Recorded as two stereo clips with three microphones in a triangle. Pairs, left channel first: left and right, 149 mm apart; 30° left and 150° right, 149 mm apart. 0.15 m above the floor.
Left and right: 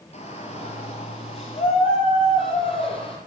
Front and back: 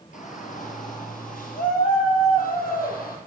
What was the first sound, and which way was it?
A shout, 50° left.